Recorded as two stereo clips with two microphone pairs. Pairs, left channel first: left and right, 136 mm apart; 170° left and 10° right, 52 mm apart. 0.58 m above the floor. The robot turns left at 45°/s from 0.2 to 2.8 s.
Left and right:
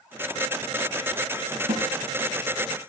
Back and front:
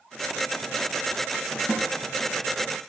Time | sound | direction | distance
1.7 | a snare drum | 115° right | 4.5 m